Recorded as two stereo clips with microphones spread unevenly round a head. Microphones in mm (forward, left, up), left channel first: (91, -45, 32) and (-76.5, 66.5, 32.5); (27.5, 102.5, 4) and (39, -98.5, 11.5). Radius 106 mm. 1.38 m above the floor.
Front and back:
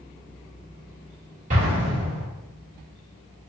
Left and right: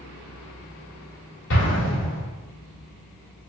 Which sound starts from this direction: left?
An explosion, at 1.5 s.